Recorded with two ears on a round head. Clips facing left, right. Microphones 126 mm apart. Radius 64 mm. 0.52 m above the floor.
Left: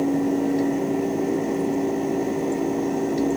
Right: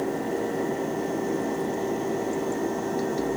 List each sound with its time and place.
Only background noise.